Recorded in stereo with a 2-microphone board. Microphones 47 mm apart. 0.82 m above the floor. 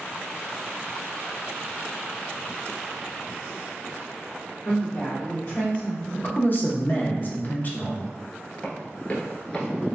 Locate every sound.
4.7 s a woman speaking: 30° left (ahead or behind), 1.2 m
6.1 s a man speaking: 40° left (ahead or behind), 0.6 m
8.6 s running footsteps: 35° left (ahead or behind), 1.0 m; by 10.0 s 5° left (ahead or behind), 0.9 m